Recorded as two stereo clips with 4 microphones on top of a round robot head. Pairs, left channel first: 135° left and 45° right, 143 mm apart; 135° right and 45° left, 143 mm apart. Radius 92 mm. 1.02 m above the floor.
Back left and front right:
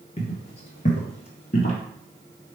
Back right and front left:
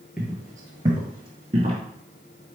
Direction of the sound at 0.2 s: 125° left.